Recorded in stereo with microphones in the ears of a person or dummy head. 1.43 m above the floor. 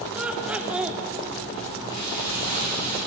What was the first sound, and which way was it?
Laughter, 5° right (ahead or behind).